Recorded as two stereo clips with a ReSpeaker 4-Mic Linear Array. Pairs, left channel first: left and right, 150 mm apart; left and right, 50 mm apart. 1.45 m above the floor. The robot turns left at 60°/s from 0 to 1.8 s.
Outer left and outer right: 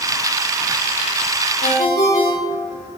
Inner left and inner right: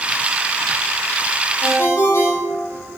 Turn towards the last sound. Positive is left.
turn(degrees=75)  # may be behind; listen again after turning